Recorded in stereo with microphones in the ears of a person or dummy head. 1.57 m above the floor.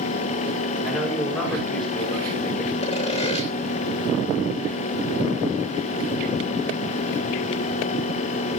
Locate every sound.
0.8 s a man speaking: 5° left (ahead or behind), 6 m; by 2.7 s 10° left (ahead or behind), 7 m
2.8 s sawing: 40° left (ahead or behind), 3.5 m